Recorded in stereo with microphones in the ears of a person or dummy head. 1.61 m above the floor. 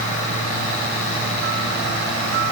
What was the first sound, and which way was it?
Only background noise.